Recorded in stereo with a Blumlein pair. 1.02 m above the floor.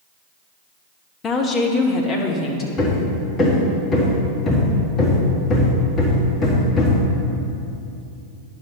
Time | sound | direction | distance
1.2 | a woman speaking | 25° left | 1.1 m
2.8 | hammering | 25° left | 1.5 m